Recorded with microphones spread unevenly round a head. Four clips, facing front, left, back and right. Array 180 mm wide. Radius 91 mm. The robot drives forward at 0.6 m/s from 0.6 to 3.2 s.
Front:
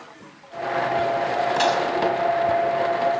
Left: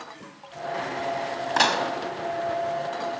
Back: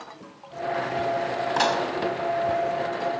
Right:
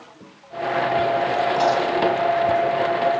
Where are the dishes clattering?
90° left, 5.5 m.